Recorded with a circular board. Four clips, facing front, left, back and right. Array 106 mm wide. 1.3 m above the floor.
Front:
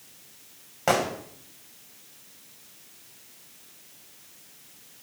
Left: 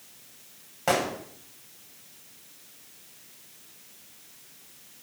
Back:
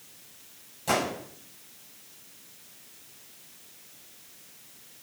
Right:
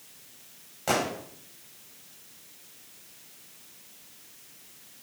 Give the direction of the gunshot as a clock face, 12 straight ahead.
11 o'clock.